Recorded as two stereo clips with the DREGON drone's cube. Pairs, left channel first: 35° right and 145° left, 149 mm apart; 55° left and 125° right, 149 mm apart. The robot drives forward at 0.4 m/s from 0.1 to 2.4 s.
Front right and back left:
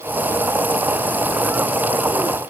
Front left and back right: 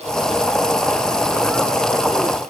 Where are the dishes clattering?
I don't hear dishes clattering.